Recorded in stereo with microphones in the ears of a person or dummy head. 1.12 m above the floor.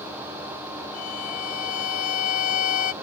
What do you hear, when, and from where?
0.9 s a violin: 45° left (ahead or behind)